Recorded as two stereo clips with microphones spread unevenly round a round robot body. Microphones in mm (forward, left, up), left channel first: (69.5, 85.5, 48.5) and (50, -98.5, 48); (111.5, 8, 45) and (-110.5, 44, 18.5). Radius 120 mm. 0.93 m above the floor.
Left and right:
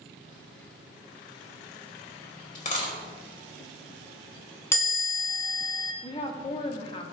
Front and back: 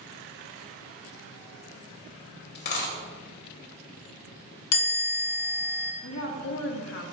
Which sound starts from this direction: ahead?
A chime, at 4.7 s.